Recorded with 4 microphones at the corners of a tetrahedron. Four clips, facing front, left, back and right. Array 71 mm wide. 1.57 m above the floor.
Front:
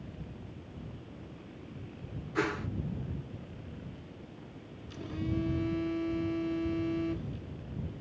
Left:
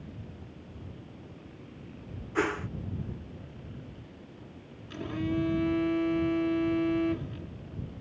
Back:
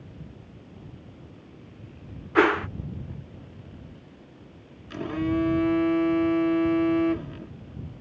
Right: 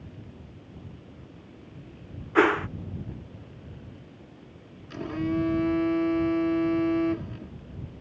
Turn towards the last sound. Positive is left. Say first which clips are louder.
# right 3 dB, back 10 dB
turn(degrees=-160)